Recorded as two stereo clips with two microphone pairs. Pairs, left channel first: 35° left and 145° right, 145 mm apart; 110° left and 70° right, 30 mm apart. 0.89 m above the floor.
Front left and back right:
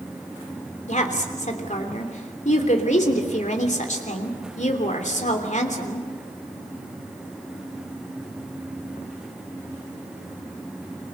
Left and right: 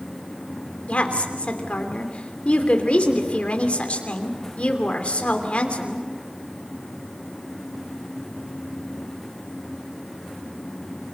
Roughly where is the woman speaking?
Ahead left.